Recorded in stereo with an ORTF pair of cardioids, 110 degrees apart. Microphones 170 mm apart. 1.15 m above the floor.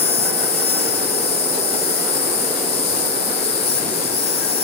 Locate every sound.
0.0 s an insect: 35° left, 1.4 m